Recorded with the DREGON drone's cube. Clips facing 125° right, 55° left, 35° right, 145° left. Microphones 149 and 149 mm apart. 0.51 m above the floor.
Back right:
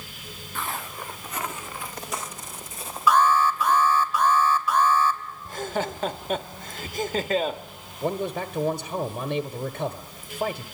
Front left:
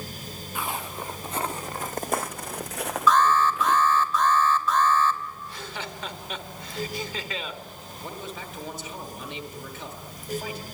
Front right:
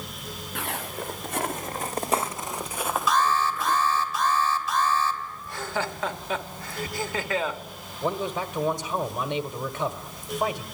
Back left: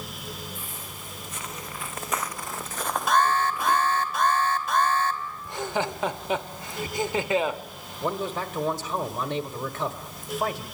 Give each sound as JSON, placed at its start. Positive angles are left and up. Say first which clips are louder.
{"t": 0.6, "sound": "footsteps", "louder": "front left 1 dB, front right 9 dB", "azimuth_deg": -20, "distance_m": 2.0}
{"t": 3.1, "sound": "an alarm", "louder": "back right 1 dB, back left 2 dB", "azimuth_deg": 160, "distance_m": 2.5}
{"t": 5.5, "sound": "laughter", "louder": "back right 9 dB, back left 2 dB", "azimuth_deg": -150, "distance_m": 1.0}
{"t": 8.0, "sound": "a man speaking", "louder": "back right 11 dB, front right 1 dB", "azimuth_deg": -125, "distance_m": 1.2}